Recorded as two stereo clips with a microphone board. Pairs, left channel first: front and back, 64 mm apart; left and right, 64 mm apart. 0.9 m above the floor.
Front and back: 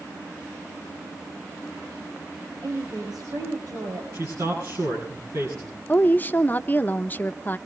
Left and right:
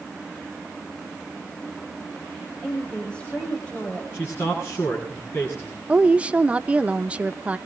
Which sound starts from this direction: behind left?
A man speaking, at 4.1 s.